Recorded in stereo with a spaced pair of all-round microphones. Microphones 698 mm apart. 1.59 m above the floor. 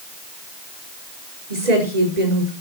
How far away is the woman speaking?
About 5.5 m.